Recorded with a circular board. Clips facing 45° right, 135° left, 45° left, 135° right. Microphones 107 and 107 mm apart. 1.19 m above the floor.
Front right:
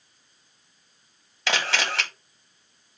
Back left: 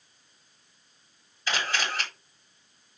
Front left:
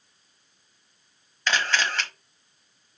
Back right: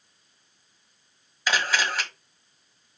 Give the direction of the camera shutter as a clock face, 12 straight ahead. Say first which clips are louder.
Front right 3 dB, even; 2 o'clock.